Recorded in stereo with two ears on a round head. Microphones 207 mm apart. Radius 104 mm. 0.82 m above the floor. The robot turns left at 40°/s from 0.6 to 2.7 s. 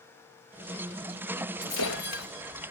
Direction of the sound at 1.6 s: 70° left (ahead or behind).